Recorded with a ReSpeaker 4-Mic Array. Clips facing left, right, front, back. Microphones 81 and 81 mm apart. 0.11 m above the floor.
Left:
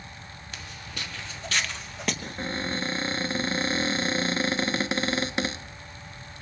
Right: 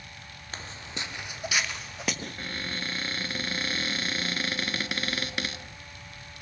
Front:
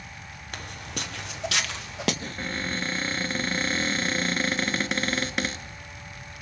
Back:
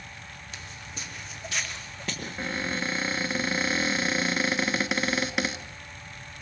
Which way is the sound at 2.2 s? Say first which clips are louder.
Left 5 dB, even; 100° left.